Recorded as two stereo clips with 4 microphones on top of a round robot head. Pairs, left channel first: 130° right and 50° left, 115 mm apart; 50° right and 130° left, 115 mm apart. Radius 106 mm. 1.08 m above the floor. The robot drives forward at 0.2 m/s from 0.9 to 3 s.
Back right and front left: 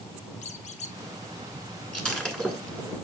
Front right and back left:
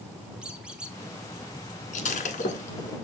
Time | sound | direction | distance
0.4 | a squeak | 145° right | 0.9 m
1.9 | breaking glass | 45° right | 1.6 m